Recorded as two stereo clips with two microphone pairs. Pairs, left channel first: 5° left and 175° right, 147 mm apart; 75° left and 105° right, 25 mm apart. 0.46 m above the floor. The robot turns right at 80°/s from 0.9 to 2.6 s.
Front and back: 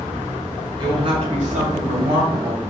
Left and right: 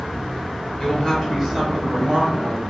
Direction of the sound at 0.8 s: 130° left.